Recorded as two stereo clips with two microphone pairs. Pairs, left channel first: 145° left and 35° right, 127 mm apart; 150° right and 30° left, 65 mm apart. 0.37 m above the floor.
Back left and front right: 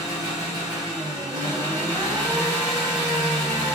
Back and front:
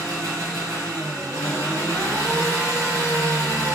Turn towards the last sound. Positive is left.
turn(degrees=20)